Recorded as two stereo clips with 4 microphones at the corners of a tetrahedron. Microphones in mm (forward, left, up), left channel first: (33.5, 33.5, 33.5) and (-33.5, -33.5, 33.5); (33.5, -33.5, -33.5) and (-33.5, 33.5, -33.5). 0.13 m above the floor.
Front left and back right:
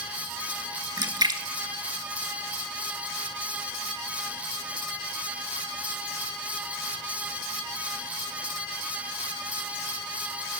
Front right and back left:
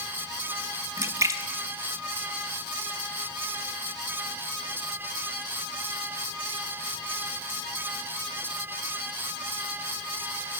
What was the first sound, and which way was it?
A splash, 170° right.